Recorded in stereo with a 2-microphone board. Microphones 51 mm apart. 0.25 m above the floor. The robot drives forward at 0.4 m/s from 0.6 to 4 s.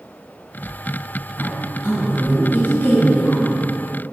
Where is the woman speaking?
50° left (ahead or behind), 1.9 m; by 3.5 s 40° left (ahead or behind), 2.5 m.